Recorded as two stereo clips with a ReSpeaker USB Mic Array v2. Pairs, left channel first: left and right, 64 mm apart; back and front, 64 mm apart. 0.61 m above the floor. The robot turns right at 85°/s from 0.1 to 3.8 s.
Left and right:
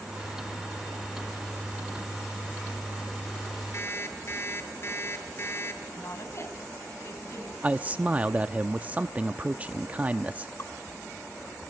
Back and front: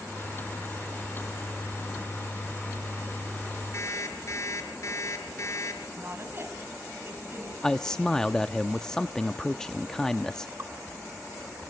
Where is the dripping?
50° left, 3 m.